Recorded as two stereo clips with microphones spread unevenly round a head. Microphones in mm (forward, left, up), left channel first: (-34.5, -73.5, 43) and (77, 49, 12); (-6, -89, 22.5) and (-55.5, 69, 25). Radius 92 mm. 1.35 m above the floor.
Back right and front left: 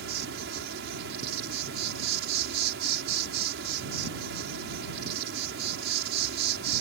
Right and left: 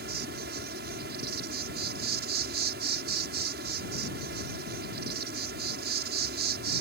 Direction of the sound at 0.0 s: 70° left.